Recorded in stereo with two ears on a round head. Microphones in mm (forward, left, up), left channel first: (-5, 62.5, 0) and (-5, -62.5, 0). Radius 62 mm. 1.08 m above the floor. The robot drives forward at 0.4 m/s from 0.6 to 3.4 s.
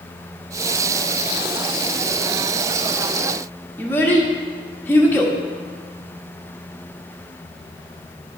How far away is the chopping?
I don't hear chopping.